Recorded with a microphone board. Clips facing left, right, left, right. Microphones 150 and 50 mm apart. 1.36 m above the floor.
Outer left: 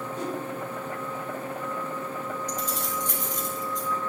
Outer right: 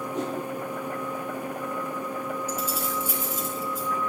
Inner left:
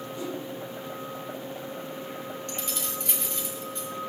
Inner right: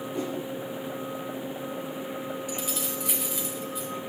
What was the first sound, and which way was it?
A whoosh, 80° right.